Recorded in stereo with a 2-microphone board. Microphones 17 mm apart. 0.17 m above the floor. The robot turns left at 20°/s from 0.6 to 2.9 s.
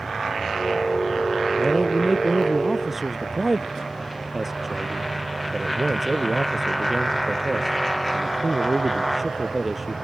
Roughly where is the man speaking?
Centre.